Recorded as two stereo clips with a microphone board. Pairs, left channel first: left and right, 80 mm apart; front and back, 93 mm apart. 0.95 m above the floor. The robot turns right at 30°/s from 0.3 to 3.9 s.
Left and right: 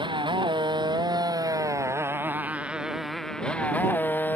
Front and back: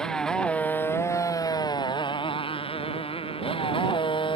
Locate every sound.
0.0 s a motorcycle: 85° right; by 4.4 s 25° left